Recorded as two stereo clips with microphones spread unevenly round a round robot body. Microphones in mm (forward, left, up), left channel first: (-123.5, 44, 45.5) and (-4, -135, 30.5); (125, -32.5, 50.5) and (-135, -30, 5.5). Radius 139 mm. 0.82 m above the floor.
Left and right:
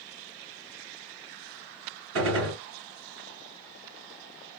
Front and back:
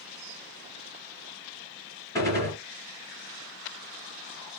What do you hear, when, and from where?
2.1 s a gunshot: 75° right, 2.5 m